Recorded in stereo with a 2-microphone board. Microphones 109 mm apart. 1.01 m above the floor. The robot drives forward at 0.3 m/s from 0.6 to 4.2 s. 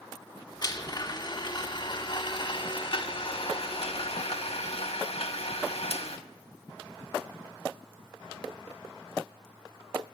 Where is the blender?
40° left (ahead or behind), 2.0 m; by 6.2 s 70° left (ahead or behind), 1.3 m.